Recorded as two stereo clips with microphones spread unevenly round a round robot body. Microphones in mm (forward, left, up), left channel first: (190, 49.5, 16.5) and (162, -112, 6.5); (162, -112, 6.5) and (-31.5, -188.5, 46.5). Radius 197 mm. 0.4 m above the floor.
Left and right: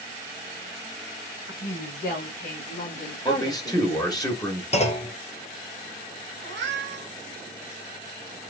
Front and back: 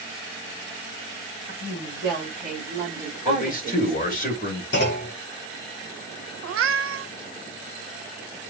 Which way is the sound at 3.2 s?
15° left.